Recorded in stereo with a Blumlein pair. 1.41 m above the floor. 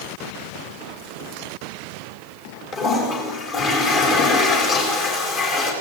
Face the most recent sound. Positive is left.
turn(degrees=35)